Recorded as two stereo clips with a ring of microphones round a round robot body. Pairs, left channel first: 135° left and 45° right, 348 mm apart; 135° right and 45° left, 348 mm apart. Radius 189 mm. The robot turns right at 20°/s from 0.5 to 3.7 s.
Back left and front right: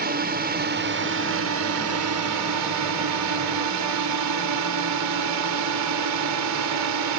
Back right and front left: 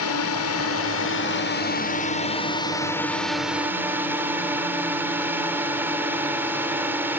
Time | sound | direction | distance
0.0 | a drone | 100° right | ?